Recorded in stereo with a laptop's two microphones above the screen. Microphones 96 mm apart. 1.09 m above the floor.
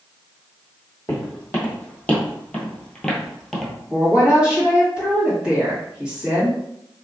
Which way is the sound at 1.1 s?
20° left (ahead or behind).